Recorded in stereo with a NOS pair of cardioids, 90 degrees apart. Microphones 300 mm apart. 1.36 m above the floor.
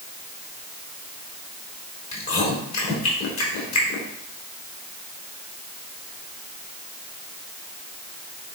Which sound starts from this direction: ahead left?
Chewing, at 2.1 s.